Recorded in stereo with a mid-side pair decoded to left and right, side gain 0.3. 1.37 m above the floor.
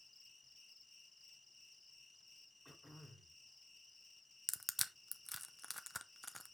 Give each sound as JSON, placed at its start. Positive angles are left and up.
{"t": 0.0, "sound": "an insect", "azimuth_deg": 25, "distance_m": 1.4}
{"t": 2.6, "sound": "throat clearing", "azimuth_deg": 10, "distance_m": 2.0}
{"t": 4.5, "sound": "crushing", "azimuth_deg": 10, "distance_m": 0.8}